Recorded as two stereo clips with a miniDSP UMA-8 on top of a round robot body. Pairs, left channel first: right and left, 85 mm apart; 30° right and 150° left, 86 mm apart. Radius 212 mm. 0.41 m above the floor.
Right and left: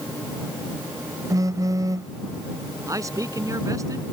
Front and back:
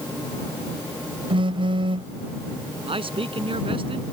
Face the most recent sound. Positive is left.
turn(degrees=140)